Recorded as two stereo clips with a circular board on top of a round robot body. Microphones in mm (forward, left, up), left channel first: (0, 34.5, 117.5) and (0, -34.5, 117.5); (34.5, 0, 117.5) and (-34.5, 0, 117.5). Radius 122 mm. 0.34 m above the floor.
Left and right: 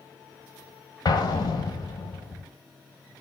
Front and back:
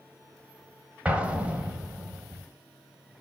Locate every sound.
1.1 s an explosion: 110° left, 1.3 m